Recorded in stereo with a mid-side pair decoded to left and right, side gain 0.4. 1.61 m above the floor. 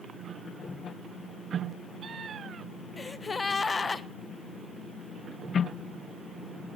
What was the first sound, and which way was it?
A gasp, 35° left.